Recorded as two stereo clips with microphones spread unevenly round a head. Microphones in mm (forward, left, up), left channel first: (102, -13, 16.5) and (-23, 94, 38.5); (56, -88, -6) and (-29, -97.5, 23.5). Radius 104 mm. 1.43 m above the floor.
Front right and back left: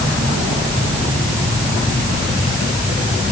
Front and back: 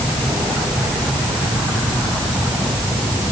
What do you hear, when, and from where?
Only background noise.